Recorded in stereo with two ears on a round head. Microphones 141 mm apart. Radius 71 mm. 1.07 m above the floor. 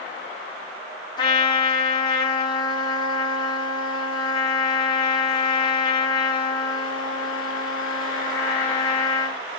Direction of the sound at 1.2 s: 30° left (ahead or behind).